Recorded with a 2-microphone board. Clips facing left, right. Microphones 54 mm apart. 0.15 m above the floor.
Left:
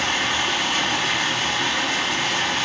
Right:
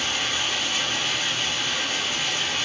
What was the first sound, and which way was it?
Running water, 90° left.